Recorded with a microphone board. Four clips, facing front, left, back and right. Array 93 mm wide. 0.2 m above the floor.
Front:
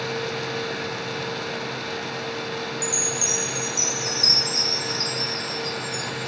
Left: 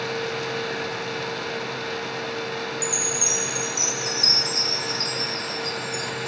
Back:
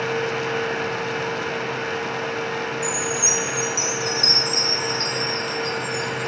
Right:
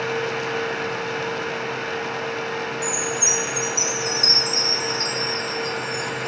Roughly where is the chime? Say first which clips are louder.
Right 3 dB, back 4 dB; behind right.